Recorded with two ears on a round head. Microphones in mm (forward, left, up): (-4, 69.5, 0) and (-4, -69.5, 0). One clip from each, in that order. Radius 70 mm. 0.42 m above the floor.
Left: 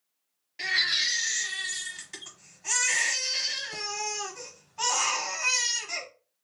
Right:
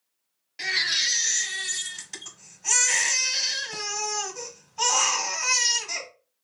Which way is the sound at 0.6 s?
20° right (ahead or behind).